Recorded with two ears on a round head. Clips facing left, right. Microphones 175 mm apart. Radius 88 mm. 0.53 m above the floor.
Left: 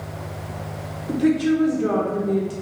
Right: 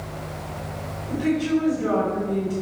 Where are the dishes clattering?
I don't hear dishes clattering.